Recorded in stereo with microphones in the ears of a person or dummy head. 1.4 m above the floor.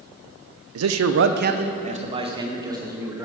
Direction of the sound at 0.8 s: 80° right.